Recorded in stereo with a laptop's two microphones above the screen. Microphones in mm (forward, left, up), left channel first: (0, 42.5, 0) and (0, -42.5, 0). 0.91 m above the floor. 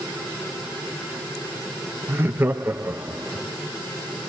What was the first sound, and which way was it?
Laughter, 25° right (ahead or behind).